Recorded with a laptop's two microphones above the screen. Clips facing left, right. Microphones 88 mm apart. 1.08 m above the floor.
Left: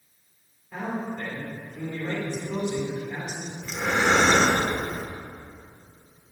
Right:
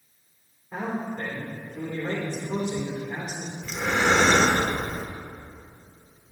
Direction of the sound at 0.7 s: 30° right (ahead or behind).